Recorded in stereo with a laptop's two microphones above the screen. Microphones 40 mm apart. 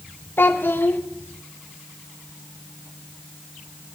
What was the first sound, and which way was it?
A child speaking, 65° left (ahead or behind).